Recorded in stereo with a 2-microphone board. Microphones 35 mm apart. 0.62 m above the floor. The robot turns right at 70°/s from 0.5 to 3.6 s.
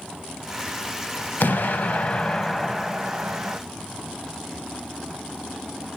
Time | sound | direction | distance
1.4 | an explosion | 90° left | 0.7 m